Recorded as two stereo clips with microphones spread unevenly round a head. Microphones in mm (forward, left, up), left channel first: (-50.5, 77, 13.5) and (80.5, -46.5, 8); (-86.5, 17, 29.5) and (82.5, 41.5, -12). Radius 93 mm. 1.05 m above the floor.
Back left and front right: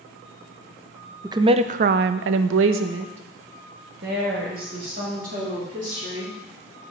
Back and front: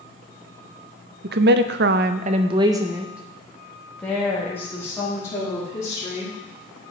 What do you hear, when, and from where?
1.2 s a woman speaking: 30° left, 0.6 m; by 6.3 s 95° right, 2.5 m